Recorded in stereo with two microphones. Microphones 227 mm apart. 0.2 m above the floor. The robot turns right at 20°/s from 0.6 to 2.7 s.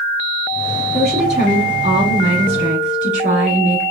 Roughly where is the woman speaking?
Behind right.